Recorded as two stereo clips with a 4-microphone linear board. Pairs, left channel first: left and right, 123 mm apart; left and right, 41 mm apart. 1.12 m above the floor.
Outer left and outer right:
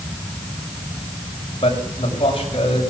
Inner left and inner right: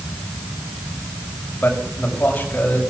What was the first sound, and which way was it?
A man speaking, 45° left (ahead or behind).